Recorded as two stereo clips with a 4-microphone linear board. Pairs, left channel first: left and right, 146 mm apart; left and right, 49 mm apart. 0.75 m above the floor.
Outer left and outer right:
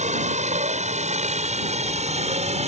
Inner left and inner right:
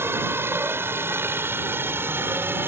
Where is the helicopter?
55° right (ahead or behind); by 2.7 s 50° right (ahead or behind).